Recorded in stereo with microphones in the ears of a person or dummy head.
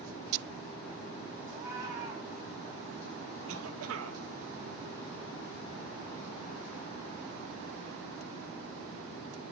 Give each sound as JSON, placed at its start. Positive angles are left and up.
{"t": 1.5, "sound": "a cat meowing", "side_deg": -20, "distance_m": 5.0}
{"t": 3.5, "sound": "a cough", "side_deg": -85, "distance_m": 2.0}